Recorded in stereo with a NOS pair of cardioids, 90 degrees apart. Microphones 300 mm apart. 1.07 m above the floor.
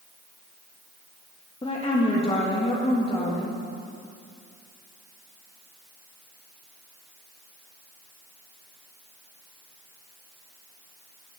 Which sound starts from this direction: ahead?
A woman speaking, at 1.6 s.